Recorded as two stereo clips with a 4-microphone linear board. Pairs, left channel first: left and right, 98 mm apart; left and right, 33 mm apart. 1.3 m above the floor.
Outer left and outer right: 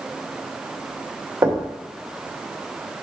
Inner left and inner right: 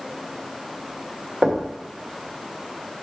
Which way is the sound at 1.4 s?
25° right (ahead or behind).